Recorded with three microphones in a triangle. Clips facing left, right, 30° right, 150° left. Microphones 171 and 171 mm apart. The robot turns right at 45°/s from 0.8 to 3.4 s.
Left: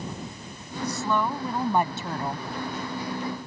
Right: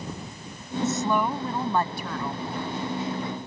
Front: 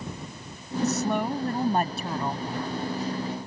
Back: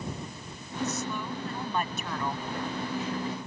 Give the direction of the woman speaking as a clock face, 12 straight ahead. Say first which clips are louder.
Right 2 dB, front 7 dB; 1 o'clock.